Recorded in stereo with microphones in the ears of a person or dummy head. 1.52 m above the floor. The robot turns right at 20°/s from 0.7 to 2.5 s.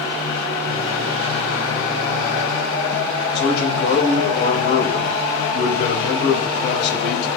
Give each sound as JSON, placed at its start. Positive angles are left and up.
{"t": 3.4, "sound": "a man speaking", "side_deg": 65, "distance_m": 7.0}